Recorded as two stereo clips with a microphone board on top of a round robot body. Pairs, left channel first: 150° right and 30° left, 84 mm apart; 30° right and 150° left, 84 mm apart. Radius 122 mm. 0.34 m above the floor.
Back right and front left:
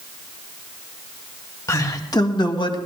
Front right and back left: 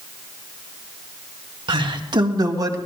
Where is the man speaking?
160° left, 2.5 m; by 2.8 s 170° right, 2.5 m.